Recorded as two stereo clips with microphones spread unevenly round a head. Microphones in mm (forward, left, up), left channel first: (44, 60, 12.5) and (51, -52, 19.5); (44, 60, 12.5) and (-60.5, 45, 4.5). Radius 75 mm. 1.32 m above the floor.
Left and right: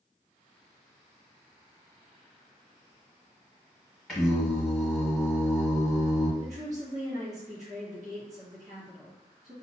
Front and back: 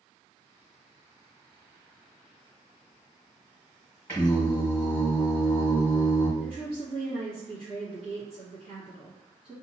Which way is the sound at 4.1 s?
Straight ahead.